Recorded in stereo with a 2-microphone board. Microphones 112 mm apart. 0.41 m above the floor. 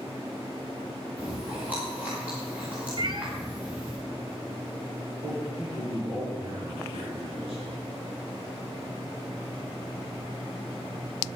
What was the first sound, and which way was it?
Chewing, 15° right (ahead or behind).